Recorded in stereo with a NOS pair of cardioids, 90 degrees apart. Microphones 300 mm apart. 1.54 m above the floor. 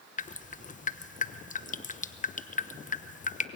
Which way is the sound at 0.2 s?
25° left.